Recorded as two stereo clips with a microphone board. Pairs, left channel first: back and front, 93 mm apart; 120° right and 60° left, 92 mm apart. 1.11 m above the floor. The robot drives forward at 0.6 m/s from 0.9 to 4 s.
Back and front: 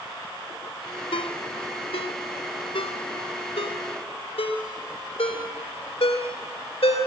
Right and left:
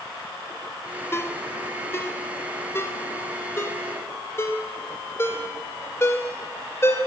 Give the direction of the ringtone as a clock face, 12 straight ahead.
6 o'clock.